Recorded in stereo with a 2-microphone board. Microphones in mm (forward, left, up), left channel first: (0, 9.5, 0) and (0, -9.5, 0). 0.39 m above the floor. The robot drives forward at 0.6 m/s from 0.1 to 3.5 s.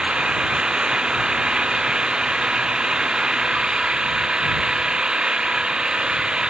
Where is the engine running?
55° right (ahead or behind); by 6.5 s 50° right (ahead or behind).